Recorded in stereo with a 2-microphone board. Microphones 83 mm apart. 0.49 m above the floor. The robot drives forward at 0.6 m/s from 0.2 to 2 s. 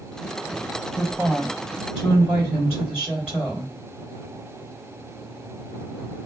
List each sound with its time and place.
0.9 s a woman speaking: 10° right (ahead or behind), 2.5 m